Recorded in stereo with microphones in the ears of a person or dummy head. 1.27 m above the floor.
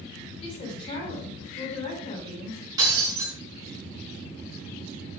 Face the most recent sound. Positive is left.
turn(degrees=-20)  # may be behind; listen again after turning